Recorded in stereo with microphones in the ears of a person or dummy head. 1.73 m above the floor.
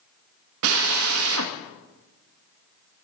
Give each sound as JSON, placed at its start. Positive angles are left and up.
{"t": 0.6, "sound": "a drill", "side_deg": -65, "distance_m": 1.9}